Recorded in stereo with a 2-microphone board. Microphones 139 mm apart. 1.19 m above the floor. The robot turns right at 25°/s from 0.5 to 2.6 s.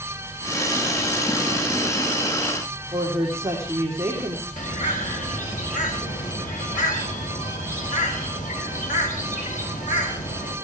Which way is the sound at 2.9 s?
20° right (ahead or behind).